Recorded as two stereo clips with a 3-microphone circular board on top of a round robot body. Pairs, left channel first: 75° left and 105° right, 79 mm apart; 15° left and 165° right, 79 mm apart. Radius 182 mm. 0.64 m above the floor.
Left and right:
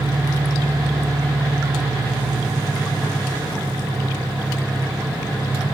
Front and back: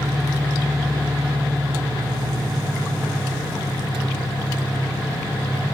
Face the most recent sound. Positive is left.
turn(degrees=50)